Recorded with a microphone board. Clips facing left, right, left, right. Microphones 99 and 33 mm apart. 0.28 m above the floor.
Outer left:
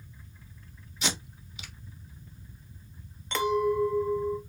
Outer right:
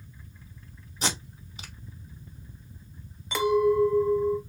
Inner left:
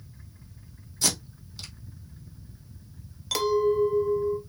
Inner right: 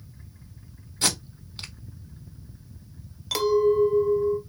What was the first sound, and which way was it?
Tape being pulled, 40° right (ahead or behind).